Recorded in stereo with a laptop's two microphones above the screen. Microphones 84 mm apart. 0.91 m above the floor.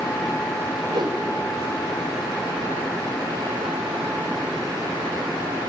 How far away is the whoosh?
About 3.5 m.